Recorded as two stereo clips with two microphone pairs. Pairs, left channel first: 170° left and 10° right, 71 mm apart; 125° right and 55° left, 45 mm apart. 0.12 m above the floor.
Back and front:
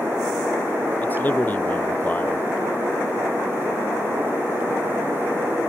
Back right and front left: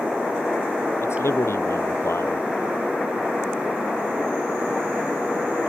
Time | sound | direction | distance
1.0 | a man speaking | 125° right | ?